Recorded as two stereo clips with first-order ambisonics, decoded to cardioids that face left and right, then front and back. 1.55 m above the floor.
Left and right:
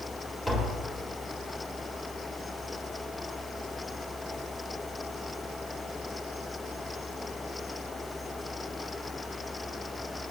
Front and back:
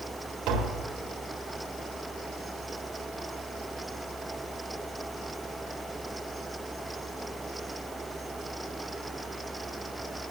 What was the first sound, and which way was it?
Tapping, 175° right.